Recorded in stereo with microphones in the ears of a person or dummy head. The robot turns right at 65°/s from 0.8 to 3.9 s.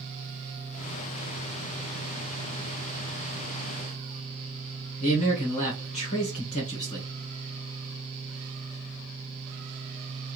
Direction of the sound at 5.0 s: 30° left (ahead or behind).